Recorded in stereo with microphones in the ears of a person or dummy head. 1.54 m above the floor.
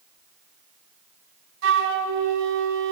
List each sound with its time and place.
1.6 s a flute: 70° right (ahead or behind), 2 m